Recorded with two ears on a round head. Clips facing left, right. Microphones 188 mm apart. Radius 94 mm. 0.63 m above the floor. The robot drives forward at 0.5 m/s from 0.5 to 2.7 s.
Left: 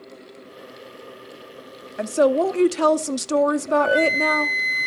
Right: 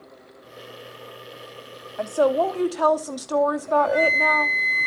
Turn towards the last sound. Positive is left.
turn(degrees=10)  # may be behind; listen again after turning